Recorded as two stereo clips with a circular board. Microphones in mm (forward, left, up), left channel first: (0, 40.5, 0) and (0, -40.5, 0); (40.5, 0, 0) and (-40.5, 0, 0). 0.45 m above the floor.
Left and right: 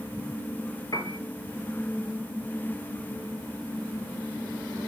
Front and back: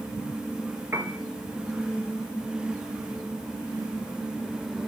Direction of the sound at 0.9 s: 120° left.